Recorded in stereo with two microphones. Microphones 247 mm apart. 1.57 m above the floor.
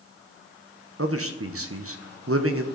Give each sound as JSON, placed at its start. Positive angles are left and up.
{"t": 1.0, "sound": "a man speaking", "side_deg": -65, "distance_m": 0.9}